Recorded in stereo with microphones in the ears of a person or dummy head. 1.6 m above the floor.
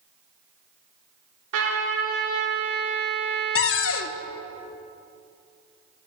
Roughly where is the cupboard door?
Left.